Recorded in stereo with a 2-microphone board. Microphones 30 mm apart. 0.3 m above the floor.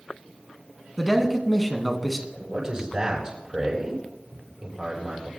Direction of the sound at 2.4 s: 20° right (ahead or behind).